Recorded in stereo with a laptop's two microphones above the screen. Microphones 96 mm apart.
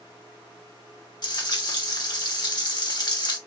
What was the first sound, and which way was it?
Frying, 45° left (ahead or behind).